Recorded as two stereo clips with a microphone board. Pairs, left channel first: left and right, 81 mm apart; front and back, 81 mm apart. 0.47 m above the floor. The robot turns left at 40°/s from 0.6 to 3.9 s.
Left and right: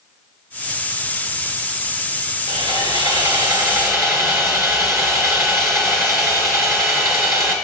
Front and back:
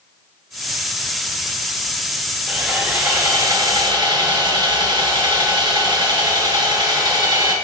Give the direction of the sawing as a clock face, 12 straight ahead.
3 o'clock.